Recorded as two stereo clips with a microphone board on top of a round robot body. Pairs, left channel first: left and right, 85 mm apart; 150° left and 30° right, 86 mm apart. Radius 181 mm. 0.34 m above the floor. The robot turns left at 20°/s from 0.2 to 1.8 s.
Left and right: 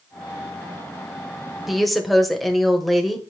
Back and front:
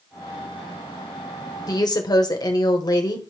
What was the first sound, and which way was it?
A woman speaking, straight behind.